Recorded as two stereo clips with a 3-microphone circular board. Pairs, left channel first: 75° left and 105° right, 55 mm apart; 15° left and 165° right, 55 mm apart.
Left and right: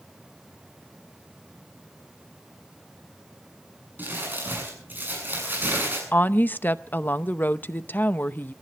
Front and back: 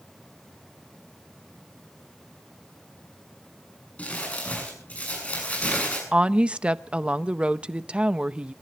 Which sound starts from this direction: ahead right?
Crumpling, at 4.0 s.